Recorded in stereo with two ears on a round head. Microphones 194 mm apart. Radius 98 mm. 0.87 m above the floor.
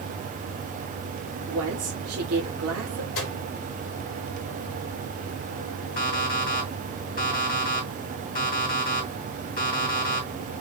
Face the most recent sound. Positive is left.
turn(degrees=40)  # may be behind; listen again after turning